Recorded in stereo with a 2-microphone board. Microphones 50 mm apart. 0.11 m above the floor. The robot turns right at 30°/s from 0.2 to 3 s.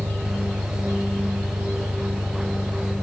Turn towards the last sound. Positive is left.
turn(degrees=10)